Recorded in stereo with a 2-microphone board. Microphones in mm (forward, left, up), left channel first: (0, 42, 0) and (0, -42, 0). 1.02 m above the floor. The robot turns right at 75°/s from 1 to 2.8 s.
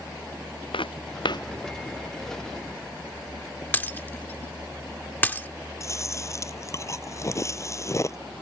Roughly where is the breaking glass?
Left.